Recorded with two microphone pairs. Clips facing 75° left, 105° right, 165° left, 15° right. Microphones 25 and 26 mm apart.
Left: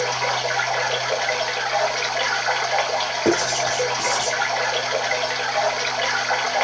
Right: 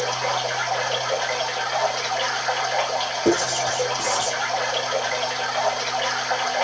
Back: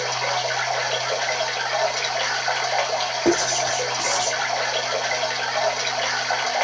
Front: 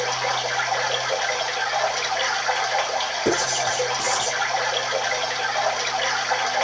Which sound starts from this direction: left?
Running water, at 0.0 s.